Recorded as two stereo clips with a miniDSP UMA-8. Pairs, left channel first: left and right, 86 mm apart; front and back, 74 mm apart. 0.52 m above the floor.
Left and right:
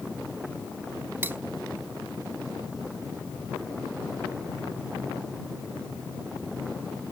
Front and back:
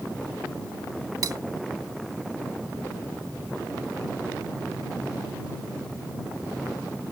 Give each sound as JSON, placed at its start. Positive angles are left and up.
{"t": 1.2, "sound": "cutlery clinking", "azimuth_deg": -155}